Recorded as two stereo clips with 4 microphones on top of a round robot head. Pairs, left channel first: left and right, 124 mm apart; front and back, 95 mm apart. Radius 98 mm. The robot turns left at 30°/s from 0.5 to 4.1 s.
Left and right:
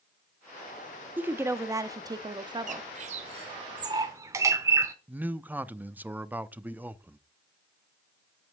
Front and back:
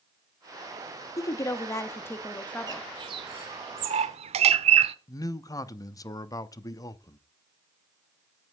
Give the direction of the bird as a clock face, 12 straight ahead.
4 o'clock.